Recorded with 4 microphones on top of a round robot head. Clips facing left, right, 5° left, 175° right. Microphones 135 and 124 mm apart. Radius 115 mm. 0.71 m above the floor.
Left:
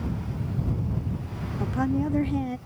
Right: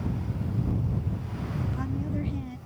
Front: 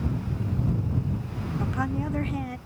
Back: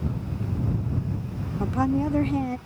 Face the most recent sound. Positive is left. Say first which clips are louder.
# left 11 dB, back 7 dB
turn(degrees=125)